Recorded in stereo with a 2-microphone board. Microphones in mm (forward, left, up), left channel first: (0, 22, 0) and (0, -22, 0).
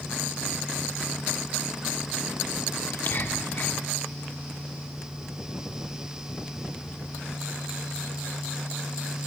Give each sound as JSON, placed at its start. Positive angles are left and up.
{"t": 2.8, "sound": "whispering", "side_deg": 50, "distance_m": 6.0}